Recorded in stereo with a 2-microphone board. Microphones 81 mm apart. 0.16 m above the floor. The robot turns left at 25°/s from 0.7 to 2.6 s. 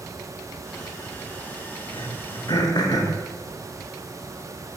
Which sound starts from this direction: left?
Throat clearing, at 1.9 s.